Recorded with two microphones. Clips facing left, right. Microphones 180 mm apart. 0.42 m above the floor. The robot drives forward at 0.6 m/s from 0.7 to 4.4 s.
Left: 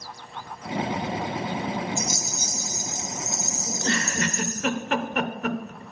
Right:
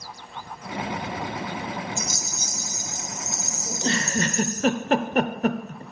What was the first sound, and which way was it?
A rattle, 50° left (ahead or behind).